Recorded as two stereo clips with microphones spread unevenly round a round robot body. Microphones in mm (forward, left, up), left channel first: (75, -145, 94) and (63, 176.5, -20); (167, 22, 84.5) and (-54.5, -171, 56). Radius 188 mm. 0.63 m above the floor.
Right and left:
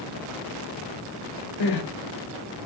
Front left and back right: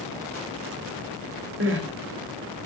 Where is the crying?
95° right, 1.8 m.